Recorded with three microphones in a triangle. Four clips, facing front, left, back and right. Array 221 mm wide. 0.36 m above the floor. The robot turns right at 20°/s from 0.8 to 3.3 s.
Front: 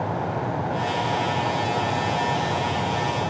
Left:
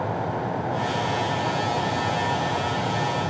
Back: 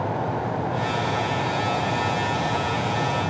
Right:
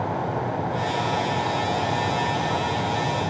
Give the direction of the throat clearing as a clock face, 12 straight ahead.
I don't hear throat clearing.